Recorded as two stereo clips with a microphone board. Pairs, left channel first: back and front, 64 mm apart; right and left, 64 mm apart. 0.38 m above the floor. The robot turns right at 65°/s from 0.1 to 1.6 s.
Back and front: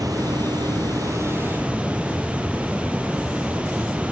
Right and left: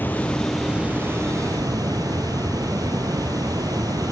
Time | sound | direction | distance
0.0 | running water | 30° right | 1.6 m